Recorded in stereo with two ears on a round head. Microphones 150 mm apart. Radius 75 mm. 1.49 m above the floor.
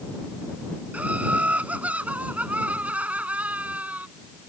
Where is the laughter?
10° right (ahead or behind).